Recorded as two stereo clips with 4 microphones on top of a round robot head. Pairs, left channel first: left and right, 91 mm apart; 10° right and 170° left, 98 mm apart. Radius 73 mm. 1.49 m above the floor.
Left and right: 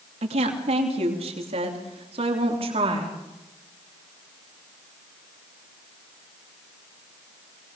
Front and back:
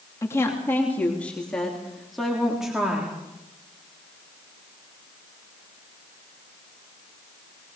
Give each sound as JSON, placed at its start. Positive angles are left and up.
{"t": 0.2, "sound": "a woman speaking", "azimuth_deg": -80, "distance_m": 3.0}